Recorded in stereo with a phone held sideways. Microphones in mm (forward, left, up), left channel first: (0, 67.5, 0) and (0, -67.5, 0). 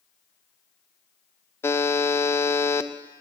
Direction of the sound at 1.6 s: 15° left (ahead or behind).